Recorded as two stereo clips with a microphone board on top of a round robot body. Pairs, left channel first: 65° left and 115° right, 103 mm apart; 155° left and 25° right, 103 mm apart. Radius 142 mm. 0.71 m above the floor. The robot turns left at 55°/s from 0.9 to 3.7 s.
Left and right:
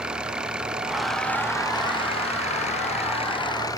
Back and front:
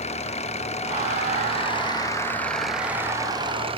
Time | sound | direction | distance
0.0 | an engine running | 165° left | ?